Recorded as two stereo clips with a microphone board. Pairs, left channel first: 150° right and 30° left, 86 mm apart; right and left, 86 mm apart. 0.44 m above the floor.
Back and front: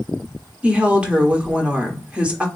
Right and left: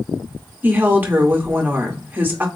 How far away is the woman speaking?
About 0.7 m.